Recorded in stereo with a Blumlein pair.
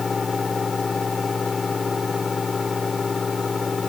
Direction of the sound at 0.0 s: 15° left.